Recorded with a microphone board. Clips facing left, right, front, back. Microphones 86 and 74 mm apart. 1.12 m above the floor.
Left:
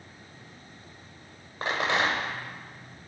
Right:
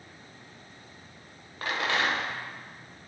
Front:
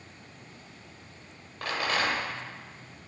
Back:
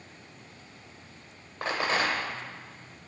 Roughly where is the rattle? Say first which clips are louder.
Left 2 dB, back 1 dB; behind left.